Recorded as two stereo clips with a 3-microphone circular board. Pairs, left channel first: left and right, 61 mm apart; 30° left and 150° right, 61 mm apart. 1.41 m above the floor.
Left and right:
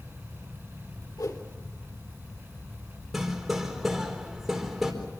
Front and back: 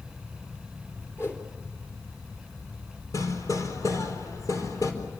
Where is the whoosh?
75° left, 3.5 m.